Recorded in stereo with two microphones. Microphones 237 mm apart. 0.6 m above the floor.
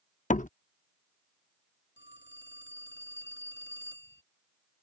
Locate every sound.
0.3 s a door slam: 30° left (ahead or behind)
2.0 s a phone ringing: 50° left (ahead or behind)